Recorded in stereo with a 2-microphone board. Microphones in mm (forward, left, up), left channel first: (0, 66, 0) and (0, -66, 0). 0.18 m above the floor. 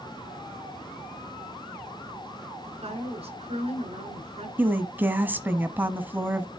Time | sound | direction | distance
2.6 | a woman speaking | 50° right (ahead or behind) | 2.5 m
4.6 | a woman speaking | 15° right (ahead or behind) | 1.1 m